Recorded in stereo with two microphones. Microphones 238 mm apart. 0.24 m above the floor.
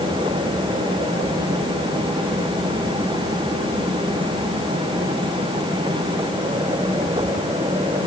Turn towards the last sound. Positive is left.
No sound to turn to.